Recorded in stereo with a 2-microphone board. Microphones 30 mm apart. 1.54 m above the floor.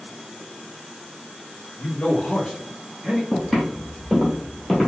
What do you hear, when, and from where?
1.8 s a man speaking: 70° left (ahead or behind), 0.9 m; by 3.2 s 35° right (ahead or behind), 0.8 m
3.3 s footsteps: 5° left (ahead or behind), 1.9 m; by 4.9 s 10° left (ahead or behind), 1.6 m